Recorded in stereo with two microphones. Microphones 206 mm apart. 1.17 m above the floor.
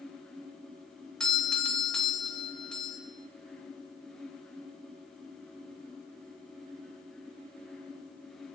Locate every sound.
1.2 s a doorbell: 5° left (ahead or behind), 0.9 m